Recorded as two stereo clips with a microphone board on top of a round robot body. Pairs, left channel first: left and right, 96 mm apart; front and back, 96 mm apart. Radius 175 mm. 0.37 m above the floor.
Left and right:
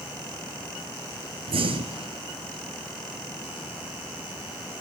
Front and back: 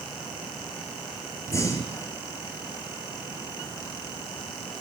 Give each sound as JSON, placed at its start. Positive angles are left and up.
{"t": 1.5, "sound": "breathing", "azimuth_deg": -60, "distance_m": 1.7}